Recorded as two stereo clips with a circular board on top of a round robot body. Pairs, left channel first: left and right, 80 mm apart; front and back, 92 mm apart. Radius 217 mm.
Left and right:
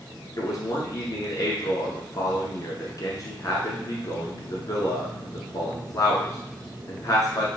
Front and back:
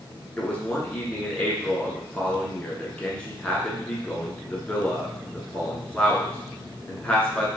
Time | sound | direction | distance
0.4 | a man speaking | 75° left | 1.6 m